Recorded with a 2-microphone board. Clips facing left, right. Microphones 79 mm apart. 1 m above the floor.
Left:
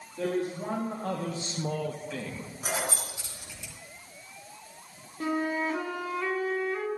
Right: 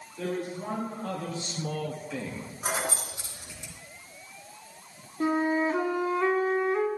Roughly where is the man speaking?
Left.